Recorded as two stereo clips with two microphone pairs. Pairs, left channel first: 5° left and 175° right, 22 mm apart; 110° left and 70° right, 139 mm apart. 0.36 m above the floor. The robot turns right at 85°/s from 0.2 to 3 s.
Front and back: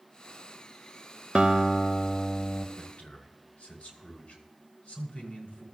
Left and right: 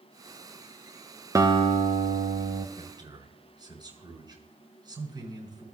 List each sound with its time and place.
1.4 s a guitar: 135° right, 0.7 m; by 2.7 s 25° right, 0.7 m
2.8 s a man speaking: 30° right, 5 m; by 5.6 s 10° right, 5 m